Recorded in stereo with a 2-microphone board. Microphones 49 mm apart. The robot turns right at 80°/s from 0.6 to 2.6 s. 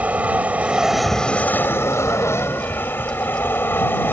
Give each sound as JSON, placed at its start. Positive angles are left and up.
{"t": 0.0, "sound": "an aircraft", "azimuth_deg": -35}